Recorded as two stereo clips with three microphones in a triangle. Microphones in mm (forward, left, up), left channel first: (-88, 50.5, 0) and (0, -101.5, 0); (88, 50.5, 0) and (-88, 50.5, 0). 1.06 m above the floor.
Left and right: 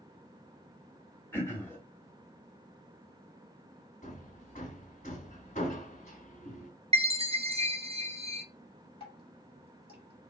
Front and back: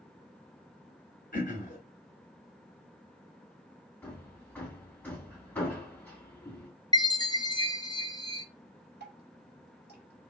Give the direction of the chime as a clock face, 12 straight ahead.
2 o'clock.